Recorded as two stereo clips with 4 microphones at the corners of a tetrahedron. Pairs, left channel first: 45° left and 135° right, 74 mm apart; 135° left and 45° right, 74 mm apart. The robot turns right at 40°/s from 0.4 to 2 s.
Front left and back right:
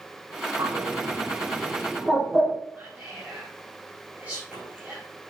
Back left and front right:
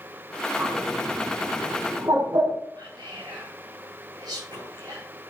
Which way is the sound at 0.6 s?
115° right.